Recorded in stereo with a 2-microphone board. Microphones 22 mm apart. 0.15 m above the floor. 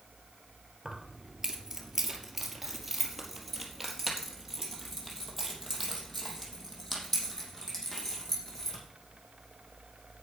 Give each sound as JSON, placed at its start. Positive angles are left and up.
{"t": 0.8, "sound": "keys jangling", "side_deg": -25, "distance_m": 2.5}